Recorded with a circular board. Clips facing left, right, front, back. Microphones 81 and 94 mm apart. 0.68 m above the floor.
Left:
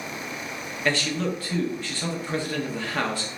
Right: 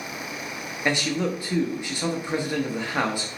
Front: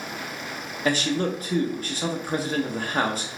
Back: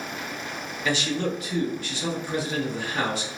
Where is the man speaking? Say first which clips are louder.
Right 1 dB, front 2 dB; 20° right, 0.7 m.